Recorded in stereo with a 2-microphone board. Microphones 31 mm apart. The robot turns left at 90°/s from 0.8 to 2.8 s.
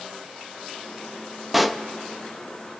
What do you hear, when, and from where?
1.5 s a pop: 5° right (ahead or behind), 0.7 m; by 1.8 s 5° left (ahead or behind), 0.7 m